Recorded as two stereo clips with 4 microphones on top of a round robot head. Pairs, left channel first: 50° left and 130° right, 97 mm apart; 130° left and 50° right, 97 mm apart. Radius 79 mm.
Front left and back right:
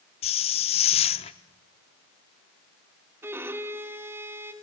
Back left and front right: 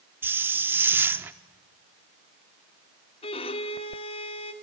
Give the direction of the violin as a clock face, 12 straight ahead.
7 o'clock.